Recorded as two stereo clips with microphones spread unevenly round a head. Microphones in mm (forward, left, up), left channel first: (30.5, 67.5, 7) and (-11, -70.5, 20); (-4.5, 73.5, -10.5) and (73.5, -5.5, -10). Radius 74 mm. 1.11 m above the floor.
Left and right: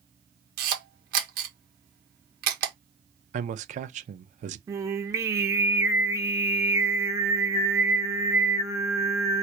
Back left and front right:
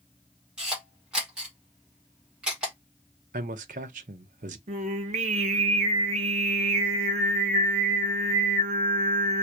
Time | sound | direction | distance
0.6 | a camera shutter | 130° right | 1.3 m
3.3 | a man speaking | 65° right | 0.7 m
4.7 | singing | 35° right | 0.7 m